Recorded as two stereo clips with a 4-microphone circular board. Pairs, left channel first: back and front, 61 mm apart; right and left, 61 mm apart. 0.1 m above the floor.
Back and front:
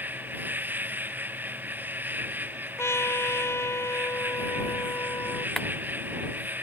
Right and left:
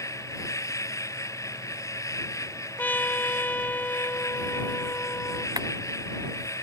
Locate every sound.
0.0 s an insect: 55° right
2.8 s a trumpet: 145° right
5.6 s a clap: 95° left